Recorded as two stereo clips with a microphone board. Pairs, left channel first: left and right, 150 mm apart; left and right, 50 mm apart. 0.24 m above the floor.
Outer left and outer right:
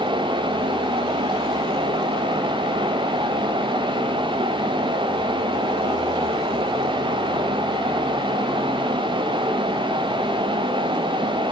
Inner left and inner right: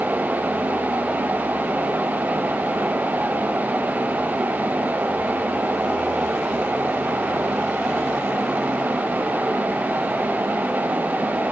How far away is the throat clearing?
No throat clearing in this recording.